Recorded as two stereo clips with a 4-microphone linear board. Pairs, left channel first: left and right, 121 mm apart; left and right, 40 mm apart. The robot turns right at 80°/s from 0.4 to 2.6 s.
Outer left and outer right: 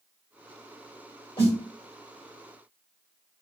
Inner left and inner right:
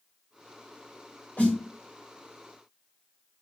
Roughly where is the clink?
I don't hear a clink.